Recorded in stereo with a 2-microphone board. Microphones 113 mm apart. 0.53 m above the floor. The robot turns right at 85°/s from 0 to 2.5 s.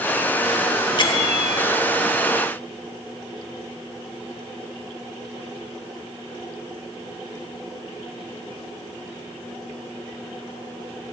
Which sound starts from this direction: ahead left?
A bell, at 1.0 s.